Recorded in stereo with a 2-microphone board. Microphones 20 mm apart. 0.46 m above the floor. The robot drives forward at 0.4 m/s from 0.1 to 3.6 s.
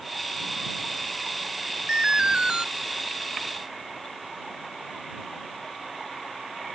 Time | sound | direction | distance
1.9 | an alarm | 45° right (ahead or behind) | ?